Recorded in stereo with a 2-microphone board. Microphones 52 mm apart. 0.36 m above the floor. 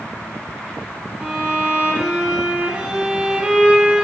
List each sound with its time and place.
1.2 s a violin: 10° right (ahead or behind), 5 m